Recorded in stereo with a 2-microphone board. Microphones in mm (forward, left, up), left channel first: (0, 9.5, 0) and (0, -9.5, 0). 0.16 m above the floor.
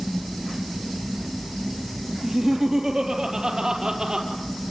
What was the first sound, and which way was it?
Laughter, 25° right (ahead or behind).